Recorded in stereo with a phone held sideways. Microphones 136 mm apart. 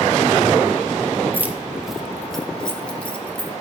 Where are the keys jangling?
15° right (ahead or behind), 0.8 m; by 3.5 s 15° left (ahead or behind), 1.8 m.